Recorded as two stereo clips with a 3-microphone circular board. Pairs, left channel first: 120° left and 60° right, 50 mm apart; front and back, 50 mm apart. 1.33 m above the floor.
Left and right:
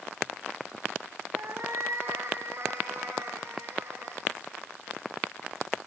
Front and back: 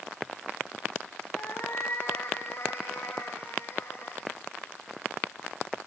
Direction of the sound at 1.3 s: 30° right.